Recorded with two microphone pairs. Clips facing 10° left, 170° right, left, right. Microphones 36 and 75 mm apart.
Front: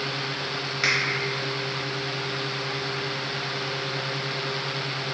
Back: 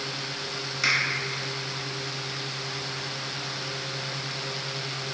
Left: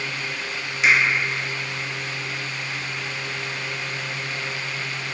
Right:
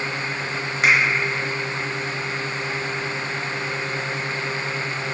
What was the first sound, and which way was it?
A finger snap, 65° right.